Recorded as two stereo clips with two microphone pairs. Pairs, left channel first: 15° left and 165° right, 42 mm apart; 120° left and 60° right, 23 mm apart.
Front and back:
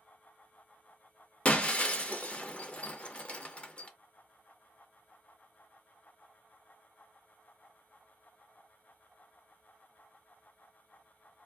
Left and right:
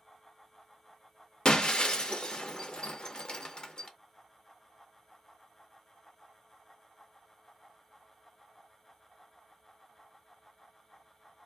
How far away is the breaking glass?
About 0.5 m.